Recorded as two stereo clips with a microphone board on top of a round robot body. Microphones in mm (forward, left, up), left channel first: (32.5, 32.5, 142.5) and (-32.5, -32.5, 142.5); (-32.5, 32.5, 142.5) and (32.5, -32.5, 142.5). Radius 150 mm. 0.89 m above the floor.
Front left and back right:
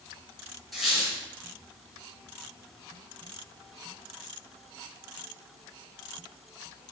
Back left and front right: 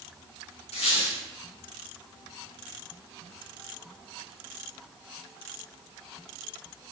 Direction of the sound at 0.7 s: 135° left.